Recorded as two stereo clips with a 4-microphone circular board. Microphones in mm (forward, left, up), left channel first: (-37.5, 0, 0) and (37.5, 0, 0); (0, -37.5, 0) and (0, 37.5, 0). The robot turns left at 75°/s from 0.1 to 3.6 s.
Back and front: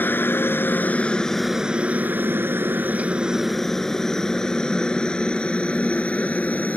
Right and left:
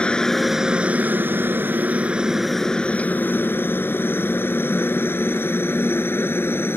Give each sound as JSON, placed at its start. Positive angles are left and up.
{"t": 0.0, "sound": "a helicopter", "azimuth_deg": -150}